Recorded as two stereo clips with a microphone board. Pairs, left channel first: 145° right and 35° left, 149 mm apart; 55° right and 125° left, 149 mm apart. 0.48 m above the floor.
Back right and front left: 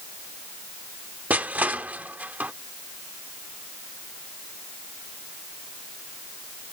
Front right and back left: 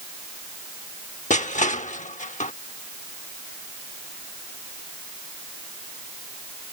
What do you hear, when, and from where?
1.3 s crushing: 45° right